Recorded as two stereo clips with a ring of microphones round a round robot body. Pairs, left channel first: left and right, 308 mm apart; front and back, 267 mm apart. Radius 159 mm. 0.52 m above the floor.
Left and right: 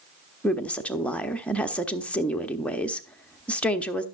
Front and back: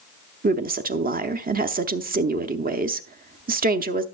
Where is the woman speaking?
170° left, 0.8 m.